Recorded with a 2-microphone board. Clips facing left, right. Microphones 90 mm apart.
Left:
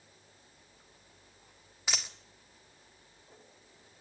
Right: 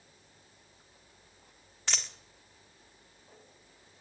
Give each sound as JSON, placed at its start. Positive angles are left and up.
{"t": 1.9, "sound": "a dropped coin", "side_deg": 5, "distance_m": 1.6}